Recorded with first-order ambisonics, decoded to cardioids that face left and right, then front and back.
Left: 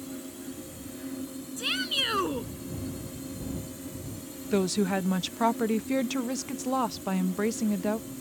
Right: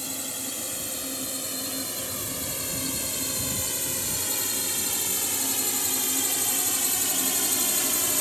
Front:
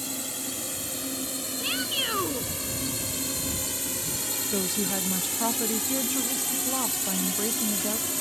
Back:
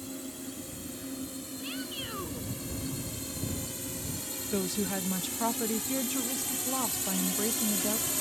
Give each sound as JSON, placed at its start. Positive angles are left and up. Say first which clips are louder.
{"t": 0.0, "sound": "a drone", "louder": "right 7 dB, front 7 dB", "azimuth_deg": -50}
{"t": 1.6, "sound": "a shout", "louder": "left 5 dB, front 11 dB", "azimuth_deg": 55}
{"t": 4.5, "sound": "a woman speaking", "louder": "left 2 dB, front 1 dB", "azimuth_deg": 85}